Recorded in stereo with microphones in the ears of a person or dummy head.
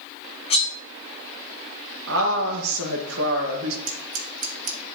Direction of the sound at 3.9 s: 40° right (ahead or behind).